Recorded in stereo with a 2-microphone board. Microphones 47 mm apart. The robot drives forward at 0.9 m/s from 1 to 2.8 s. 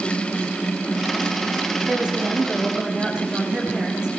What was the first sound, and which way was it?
A woman speaking, 20° right (ahead or behind).